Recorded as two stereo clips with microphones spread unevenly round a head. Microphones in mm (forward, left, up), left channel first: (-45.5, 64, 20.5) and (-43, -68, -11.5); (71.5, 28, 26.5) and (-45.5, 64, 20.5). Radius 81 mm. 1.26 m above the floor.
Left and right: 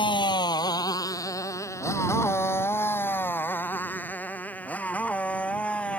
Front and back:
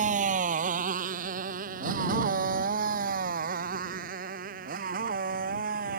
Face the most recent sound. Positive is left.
turn(degrees=170)